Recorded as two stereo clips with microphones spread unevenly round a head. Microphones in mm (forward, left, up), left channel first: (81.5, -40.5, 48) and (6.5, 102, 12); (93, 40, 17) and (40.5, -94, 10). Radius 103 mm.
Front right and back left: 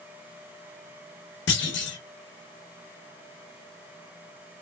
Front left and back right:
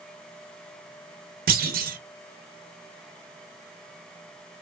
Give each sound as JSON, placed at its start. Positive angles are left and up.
{"t": 1.5, "sound": "a clunk", "azimuth_deg": -95, "distance_m": 1.0}